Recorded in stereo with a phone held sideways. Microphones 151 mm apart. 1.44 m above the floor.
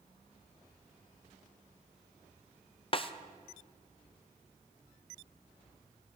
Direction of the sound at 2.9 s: 35° left (ahead or behind).